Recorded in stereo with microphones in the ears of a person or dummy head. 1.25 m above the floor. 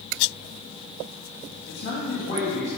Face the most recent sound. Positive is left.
turn(degrees=40)  # may be behind; listen again after turning